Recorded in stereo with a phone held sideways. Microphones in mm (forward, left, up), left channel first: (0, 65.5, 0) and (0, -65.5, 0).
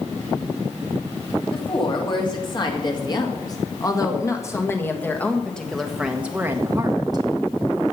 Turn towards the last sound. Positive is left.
turn(degrees=-40)  # may be behind; listen again after turning